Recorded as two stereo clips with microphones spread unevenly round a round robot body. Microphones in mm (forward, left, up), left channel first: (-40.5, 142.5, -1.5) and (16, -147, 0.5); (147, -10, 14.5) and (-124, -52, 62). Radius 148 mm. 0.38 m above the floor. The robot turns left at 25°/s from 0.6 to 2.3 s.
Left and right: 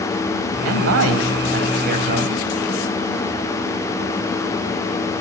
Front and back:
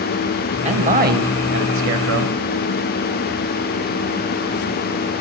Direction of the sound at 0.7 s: 100° right.